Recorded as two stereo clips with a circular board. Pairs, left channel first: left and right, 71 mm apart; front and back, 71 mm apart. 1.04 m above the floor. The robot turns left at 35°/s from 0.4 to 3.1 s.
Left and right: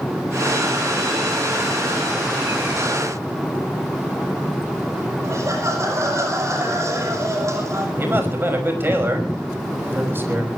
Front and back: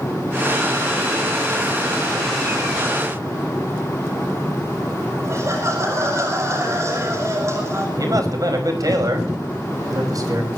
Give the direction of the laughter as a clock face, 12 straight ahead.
4 o'clock.